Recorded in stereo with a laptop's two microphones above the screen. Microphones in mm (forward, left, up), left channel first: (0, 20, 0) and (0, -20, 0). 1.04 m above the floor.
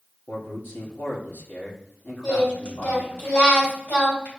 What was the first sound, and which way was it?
A man speaking, 55° left (ahead or behind).